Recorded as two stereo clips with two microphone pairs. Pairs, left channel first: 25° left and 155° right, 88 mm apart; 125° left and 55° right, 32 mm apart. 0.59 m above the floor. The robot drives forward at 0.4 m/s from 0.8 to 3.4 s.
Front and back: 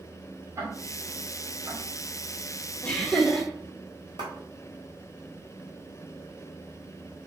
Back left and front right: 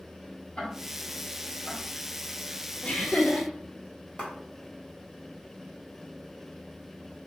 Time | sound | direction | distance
0.6 | ticking | 160° left | 1.9 m
2.8 | laughter | 100° left | 1.2 m
4.2 | a clap | 170° right | 1.8 m